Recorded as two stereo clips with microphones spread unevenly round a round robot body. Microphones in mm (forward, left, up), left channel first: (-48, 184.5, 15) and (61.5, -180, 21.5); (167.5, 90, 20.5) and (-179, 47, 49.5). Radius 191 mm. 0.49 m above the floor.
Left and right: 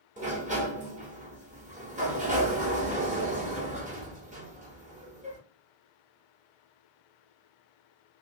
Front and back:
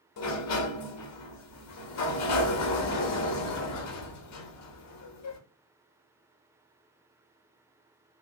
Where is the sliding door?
5° right, 0.6 m.